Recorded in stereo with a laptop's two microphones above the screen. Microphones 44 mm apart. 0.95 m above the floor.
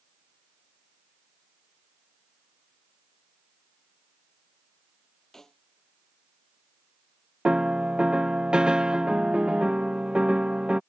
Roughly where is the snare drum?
Centre.